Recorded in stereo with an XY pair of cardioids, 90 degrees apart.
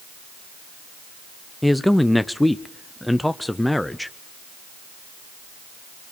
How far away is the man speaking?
About 0.6 m.